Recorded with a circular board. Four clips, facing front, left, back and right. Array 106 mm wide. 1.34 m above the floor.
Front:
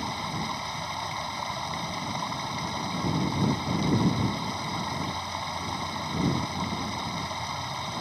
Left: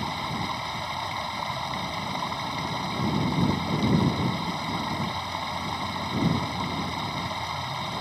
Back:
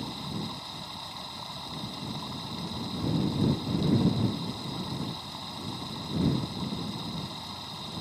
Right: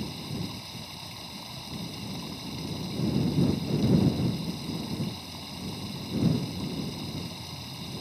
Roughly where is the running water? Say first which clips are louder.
Left 6 dB, front 5 dB; ahead left.